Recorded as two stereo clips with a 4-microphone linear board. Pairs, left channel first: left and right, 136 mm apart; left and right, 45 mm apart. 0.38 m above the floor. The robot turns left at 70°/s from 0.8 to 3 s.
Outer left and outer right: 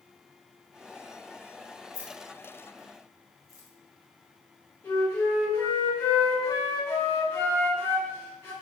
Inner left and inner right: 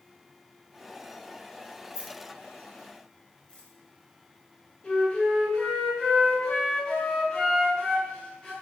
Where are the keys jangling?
20° right (ahead or behind), 0.9 m; by 3.7 s 25° left (ahead or behind), 0.9 m.